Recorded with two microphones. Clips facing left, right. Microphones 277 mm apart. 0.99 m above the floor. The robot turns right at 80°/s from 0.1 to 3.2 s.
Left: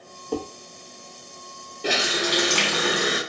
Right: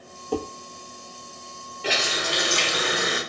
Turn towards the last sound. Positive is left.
turn(degrees=160)